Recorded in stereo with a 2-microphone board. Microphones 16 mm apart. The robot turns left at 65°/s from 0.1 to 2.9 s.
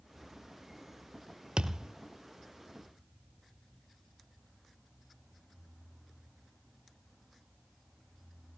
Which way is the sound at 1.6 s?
85° right.